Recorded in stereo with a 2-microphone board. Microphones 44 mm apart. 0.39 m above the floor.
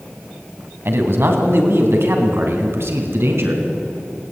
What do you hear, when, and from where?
0.8 s a man speaking: 60° right (ahead or behind), 3 m; by 3.6 s 70° right (ahead or behind), 4.5 m